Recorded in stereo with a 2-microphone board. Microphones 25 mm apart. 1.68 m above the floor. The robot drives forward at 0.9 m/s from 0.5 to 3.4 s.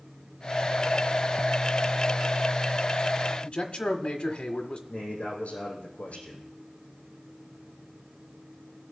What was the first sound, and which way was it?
A man speaking, 60° left (ahead or behind).